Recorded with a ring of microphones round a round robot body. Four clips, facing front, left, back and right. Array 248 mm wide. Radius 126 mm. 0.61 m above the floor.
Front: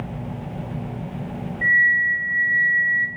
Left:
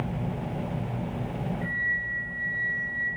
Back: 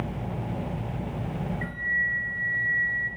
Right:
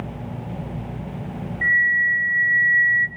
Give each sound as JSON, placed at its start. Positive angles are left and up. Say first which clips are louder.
{"t": 1.6, "sound": "a flute", "louder": "right 10 dB, front 10 dB", "azimuth_deg": -80, "distance_m": 1.8}